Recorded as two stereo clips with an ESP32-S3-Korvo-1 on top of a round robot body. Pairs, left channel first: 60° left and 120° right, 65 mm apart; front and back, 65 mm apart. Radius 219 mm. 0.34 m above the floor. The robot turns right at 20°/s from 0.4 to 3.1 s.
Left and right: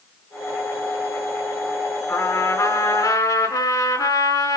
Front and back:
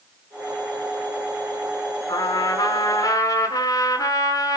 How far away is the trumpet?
About 5 m.